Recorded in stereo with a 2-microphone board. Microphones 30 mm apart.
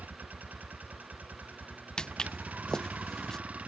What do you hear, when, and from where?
0.0 s a vehicle: 85° right; by 3.7 s 55° right (ahead or behind)
2.0 s footsteps: 25° left (ahead or behind); by 3.4 s 20° left (ahead or behind)